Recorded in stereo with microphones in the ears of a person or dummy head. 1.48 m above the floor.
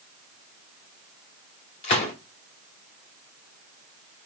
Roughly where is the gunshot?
Left.